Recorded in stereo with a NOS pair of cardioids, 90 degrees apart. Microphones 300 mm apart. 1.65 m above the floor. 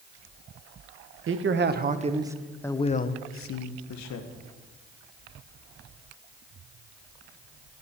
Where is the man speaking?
45° right, 1.6 m; by 4.3 s 70° left, 1.7 m.